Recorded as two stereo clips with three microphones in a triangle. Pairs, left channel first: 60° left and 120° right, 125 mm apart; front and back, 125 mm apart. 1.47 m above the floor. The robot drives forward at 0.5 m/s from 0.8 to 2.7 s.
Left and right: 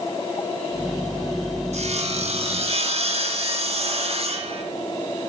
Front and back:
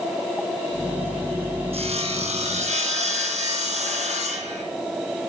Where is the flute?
I don't hear a flute.